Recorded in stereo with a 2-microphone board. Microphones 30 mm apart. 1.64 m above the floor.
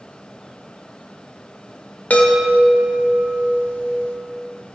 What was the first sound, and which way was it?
A chime, 65° left (ahead or behind).